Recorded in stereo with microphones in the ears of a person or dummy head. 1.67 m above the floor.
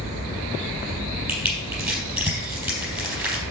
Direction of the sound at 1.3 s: 5° right (ahead or behind).